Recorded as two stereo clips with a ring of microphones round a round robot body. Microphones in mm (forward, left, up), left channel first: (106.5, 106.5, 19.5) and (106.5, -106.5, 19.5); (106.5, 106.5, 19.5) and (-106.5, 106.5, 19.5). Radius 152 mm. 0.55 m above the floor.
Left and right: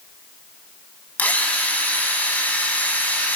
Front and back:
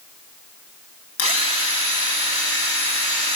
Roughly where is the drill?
Ahead.